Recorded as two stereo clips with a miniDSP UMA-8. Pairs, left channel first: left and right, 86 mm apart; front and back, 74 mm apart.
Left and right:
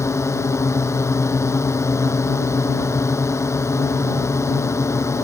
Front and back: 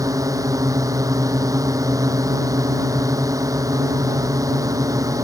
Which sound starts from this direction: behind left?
A drone, at 0.0 s.